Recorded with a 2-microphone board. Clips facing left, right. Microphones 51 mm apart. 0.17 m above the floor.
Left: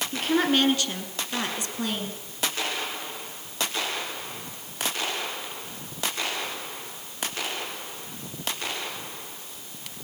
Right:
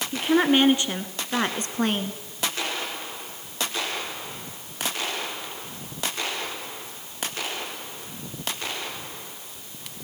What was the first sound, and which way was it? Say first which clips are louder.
A woman speaking: right 3 dB; 10° right (ahead or behind).